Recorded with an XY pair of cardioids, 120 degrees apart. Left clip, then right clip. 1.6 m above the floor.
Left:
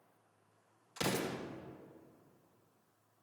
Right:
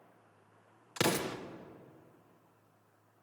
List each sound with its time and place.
1.0 s an explosion: 70° right, 1.2 m